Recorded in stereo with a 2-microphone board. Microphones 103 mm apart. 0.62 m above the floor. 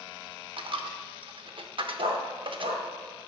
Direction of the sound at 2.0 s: 90° right.